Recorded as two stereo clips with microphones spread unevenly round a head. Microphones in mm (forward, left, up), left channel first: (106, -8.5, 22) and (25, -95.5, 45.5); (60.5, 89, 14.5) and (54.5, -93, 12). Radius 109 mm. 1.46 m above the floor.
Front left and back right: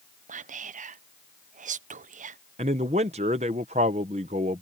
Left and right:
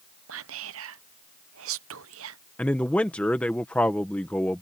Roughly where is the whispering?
Behind right.